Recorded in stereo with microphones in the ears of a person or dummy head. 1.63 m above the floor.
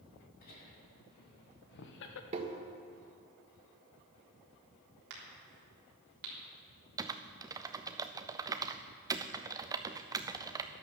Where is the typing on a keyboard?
20° right (ahead or behind), 0.5 m.